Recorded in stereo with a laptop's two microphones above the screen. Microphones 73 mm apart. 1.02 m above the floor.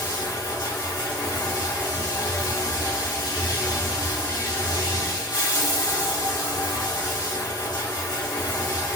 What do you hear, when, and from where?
0.0 s running water: 65° left (ahead or behind), 0.8 m